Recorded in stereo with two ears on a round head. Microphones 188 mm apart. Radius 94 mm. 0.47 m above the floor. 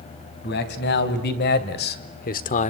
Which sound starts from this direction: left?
A man speaking, at 0.4 s.